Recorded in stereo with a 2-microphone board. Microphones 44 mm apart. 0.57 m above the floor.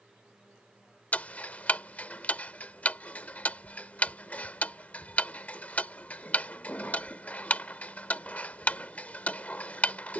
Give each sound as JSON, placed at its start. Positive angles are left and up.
{"t": 1.1, "sound": "ticking", "side_deg": 35}